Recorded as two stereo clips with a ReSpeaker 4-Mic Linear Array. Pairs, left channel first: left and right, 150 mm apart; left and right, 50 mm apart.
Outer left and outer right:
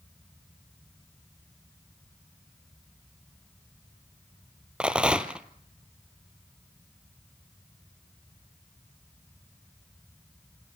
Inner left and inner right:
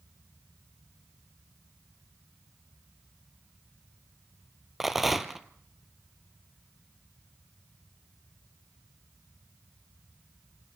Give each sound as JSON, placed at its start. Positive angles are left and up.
{"t": 4.8, "sound": "a rattle", "side_deg": -5, "distance_m": 0.9}